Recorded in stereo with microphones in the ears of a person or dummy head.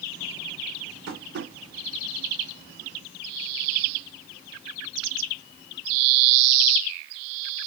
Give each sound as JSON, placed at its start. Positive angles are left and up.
{"t": 1.1, "sound": "tapping", "side_deg": -65, "distance_m": 2.5}